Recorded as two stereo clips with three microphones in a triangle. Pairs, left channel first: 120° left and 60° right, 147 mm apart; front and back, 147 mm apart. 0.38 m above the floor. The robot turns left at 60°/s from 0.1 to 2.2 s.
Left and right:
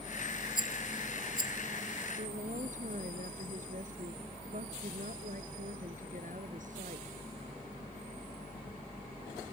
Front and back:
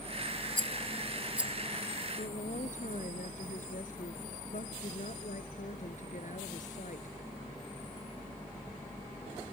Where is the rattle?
150° left; by 1.5 s 90° left.